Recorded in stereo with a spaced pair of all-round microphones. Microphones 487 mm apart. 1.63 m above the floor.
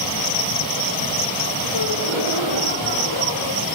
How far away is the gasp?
About 3.5 m.